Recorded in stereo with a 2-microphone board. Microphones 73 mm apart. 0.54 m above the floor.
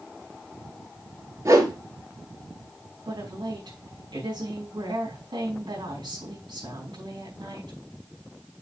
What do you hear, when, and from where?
1.4 s a whoosh: 45° right (ahead or behind), 3.5 m
3.0 s a woman speaking: 70° right (ahead or behind), 4.5 m